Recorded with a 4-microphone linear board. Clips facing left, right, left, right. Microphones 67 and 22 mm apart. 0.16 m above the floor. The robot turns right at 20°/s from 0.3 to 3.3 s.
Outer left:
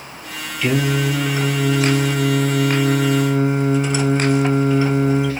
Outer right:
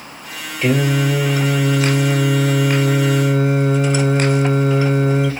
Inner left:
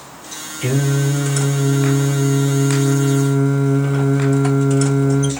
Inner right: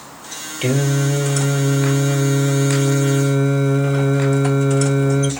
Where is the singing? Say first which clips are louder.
Outer right 2 dB, even; 145° right, 1.3 m; by 5.3 s 90° right, 1.3 m.